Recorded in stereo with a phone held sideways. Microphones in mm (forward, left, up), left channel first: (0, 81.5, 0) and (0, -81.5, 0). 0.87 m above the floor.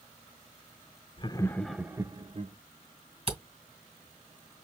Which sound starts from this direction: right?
A camera shutter, at 3.3 s.